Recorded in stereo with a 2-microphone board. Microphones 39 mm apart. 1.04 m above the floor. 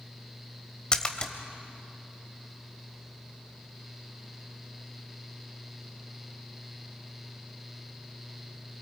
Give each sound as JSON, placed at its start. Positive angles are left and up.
{"t": 0.9, "sound": "a splash", "side_deg": 25, "distance_m": 1.3}